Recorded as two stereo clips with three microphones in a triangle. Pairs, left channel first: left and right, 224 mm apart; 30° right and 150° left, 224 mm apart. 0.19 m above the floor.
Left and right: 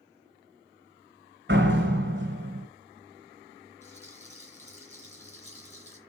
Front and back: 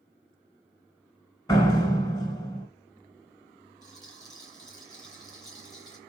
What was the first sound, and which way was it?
A door slam, 100° right.